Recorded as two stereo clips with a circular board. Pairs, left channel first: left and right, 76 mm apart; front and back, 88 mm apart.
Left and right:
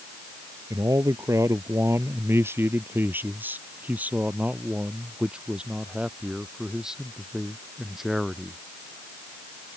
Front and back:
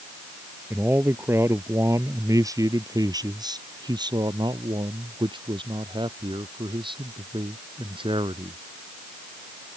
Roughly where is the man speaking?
Behind right.